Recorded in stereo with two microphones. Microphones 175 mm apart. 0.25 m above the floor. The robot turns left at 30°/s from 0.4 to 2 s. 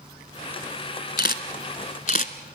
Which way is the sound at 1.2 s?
75° left (ahead or behind).